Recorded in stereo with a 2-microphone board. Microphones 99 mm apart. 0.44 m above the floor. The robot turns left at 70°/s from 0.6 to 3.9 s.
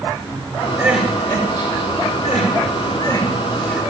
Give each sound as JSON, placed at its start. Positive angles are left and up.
{"t": 0.8, "sound": "crying", "side_deg": -20, "distance_m": 5.0}